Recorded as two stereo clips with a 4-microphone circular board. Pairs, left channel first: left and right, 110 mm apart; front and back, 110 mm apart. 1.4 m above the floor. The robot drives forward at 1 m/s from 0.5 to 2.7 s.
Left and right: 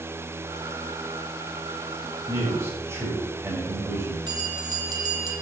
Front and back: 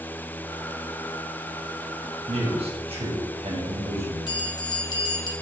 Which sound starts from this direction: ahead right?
A bell, at 4.3 s.